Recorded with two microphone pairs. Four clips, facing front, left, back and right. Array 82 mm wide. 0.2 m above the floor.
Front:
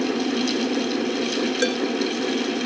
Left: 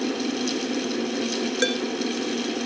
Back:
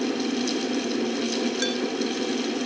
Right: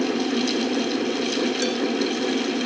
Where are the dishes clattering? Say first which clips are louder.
Even, front 5 dB; 55° left, 2 m.